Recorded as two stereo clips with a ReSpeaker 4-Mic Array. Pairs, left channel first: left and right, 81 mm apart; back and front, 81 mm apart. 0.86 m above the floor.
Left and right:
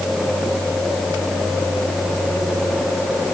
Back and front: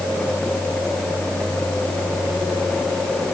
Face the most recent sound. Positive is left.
No sound to turn to.